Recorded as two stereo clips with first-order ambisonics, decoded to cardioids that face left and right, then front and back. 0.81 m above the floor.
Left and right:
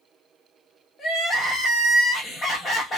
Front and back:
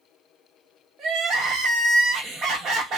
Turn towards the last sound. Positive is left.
turn(degrees=145)